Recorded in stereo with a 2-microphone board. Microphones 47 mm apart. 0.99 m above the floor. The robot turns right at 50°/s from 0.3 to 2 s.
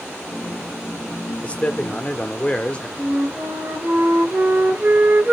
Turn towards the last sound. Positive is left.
turn(degrees=-40)  # may be behind; listen again after turning